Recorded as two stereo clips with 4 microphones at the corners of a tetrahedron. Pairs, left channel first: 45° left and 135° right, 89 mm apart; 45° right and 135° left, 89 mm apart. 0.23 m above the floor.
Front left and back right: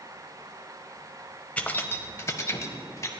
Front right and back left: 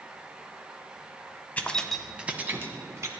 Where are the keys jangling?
5° right, 0.6 m; by 3.1 s 90° left, 1.0 m.